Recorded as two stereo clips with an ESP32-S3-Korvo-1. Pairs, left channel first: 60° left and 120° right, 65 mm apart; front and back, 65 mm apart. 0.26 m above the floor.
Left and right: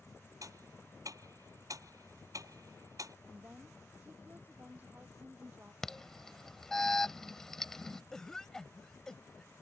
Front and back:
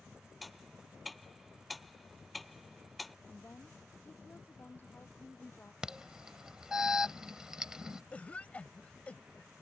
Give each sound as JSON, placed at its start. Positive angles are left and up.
{"t": 0.4, "sound": "ticking", "azimuth_deg": -90}
{"t": 3.3, "sound": "a woman speaking", "azimuth_deg": -60}
{"t": 5.8, "sound": "an alarm", "azimuth_deg": 125}
{"t": 8.1, "sound": "a cough", "azimuth_deg": -5}